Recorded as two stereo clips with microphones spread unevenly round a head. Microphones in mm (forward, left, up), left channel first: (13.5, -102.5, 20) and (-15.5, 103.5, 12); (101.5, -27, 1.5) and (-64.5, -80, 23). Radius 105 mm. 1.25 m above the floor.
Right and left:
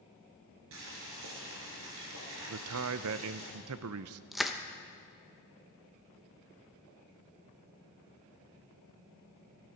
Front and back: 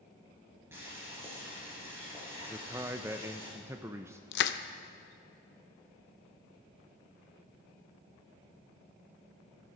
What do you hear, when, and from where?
0.7 s boiling: 120° left, 3 m
2.5 s a man speaking: 120° left, 0.5 m
4.3 s crushing: 10° left, 0.5 m